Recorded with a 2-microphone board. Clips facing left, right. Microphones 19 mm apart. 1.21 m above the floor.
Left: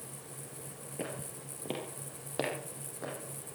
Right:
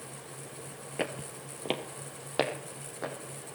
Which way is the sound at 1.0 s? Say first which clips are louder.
Right 6 dB; 50° right (ahead or behind).